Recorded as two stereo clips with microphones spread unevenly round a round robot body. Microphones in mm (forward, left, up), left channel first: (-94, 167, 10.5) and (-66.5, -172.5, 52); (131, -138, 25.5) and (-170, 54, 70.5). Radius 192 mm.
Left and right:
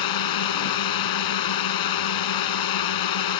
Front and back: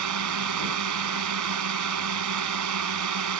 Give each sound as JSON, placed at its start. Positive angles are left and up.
{"t": 0.0, "sound": "a drone", "azimuth_deg": 100}